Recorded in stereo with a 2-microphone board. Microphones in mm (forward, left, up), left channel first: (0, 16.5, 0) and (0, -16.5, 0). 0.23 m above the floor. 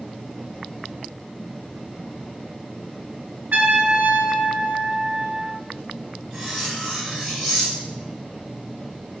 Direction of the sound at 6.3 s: 30° right (ahead or behind).